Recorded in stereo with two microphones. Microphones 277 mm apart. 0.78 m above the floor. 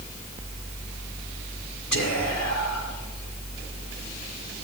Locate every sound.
1.9 s whispering: 75° left (ahead or behind), 3 m